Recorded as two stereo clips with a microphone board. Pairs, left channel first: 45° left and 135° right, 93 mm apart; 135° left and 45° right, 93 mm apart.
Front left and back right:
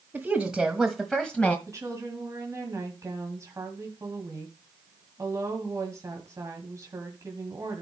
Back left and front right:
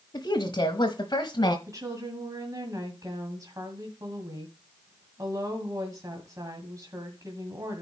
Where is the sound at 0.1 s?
155° left, 1.4 m; by 1.6 s 115° left, 1.4 m.